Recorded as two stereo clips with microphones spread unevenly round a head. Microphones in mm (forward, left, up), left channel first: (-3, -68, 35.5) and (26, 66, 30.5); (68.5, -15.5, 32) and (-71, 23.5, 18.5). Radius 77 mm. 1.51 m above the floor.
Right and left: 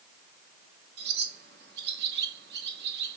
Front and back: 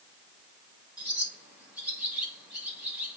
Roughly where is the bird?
Left.